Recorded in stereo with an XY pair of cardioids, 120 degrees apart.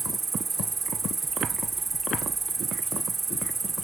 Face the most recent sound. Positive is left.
turn(degrees=-25)